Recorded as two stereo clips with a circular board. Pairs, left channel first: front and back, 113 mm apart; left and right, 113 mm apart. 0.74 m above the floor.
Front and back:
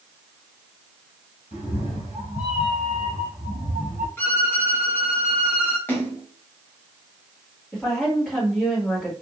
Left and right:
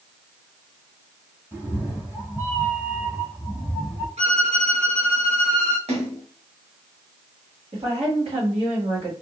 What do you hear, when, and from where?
1.5 s a cat meowing: 20° right, 1.7 m
4.2 s a violin: 70° right, 1.2 m
5.9 s a splash: 70° right, 0.9 m
7.7 s a woman speaking: 80° right, 1.8 m